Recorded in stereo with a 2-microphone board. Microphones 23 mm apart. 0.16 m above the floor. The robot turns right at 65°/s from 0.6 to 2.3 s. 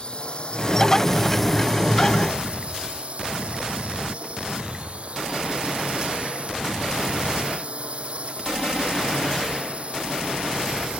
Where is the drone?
135° left; by 11.0 s 115° right.